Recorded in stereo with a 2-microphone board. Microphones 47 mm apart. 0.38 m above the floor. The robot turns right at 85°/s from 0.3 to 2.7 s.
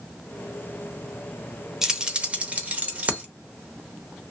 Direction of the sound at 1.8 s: 10° right (ahead or behind).